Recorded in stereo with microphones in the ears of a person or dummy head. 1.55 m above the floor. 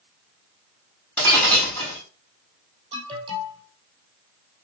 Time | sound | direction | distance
1.2 | breaking glass | 10° left (ahead or behind) | 6 m
2.9 | an alarm | 20° right (ahead or behind) | 5.5 m